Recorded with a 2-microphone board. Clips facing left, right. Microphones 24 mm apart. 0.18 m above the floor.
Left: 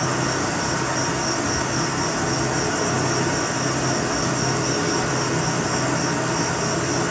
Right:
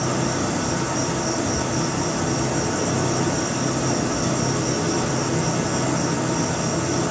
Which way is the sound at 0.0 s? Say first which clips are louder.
Left 1 dB; 40° left (ahead or behind).